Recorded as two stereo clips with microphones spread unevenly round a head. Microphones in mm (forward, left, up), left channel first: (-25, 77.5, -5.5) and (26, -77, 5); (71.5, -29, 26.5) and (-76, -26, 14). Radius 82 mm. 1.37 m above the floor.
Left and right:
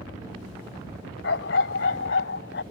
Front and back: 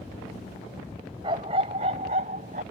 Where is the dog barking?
115° left; by 2.6 s 130° left.